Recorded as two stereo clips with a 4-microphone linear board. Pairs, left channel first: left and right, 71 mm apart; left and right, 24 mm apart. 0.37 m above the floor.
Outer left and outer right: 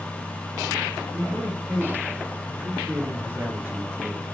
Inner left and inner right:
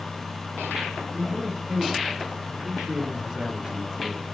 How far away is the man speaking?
About 6 m.